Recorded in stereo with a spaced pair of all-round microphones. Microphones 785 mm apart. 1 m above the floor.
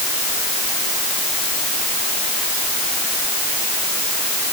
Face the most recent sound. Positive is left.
No sound to turn to.